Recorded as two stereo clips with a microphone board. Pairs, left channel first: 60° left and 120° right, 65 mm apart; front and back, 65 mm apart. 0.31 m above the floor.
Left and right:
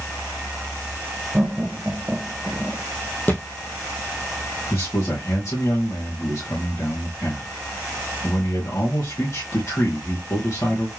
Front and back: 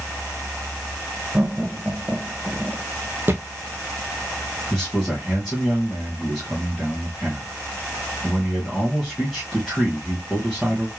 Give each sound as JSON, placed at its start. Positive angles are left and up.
{"t": 1.3, "sound": "laughter", "azimuth_deg": -160, "distance_m": 1.0}
{"t": 3.3, "sound": "a thud", "azimuth_deg": 120, "distance_m": 1.7}
{"t": 4.7, "sound": "a man speaking", "azimuth_deg": 90, "distance_m": 2.5}